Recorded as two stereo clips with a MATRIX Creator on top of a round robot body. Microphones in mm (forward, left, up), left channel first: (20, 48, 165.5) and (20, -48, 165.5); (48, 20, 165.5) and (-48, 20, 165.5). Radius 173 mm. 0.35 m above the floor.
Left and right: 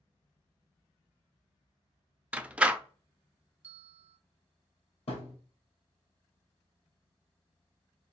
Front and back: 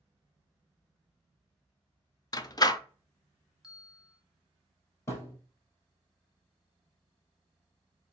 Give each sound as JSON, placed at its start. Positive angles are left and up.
{"t": 2.3, "sound": "a door slam", "azimuth_deg": -20, "distance_m": 0.6}
{"t": 3.6, "sound": "a bell", "azimuth_deg": -95, "distance_m": 0.6}
{"t": 5.1, "sound": "a thud", "azimuth_deg": 60, "distance_m": 2.5}